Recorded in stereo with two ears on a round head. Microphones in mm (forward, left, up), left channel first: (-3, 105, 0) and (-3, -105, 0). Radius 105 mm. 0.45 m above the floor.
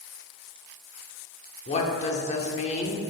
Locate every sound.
1.7 s a woman speaking: 30° left (ahead or behind), 0.8 m